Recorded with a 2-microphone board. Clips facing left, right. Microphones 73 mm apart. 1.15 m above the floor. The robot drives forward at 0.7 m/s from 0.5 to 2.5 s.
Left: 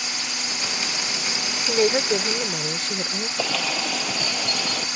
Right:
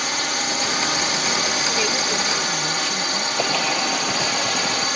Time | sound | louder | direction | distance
0.0 | a drone | right 7 dB | 60° right (ahead or behind) | ?
1.7 | a woman speaking | left 3 dB | 45° left (ahead or behind) | ?
3.4 | a bird | right 3 dB | 10° right (ahead or behind) | ?